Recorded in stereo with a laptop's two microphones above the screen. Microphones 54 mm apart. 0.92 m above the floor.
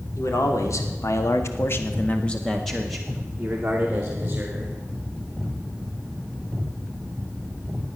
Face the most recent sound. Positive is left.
turn(degrees=-25)  # may be behind; listen again after turning